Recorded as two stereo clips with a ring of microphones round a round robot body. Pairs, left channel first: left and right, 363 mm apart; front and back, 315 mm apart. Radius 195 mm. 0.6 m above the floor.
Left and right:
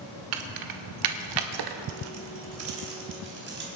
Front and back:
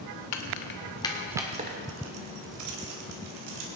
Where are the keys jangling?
40° right, 1.4 m; by 3.7 s 155° right, 3 m.